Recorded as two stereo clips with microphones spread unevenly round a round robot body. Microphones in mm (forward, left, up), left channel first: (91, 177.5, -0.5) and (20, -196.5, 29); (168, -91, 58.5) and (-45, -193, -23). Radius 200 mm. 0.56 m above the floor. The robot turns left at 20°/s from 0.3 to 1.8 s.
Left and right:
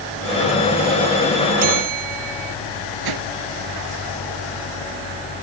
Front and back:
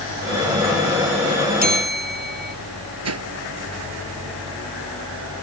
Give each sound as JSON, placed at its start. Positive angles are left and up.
{"t": 1.6, "sound": "a bell", "azimuth_deg": -105}
{"t": 3.0, "sound": "a whoosh", "azimuth_deg": -140}